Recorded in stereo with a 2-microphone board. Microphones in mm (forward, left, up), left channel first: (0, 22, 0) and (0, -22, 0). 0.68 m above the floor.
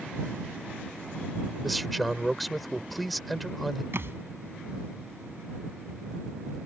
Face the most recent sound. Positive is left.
turn(degrees=-65)  # may be behind; listen again after turning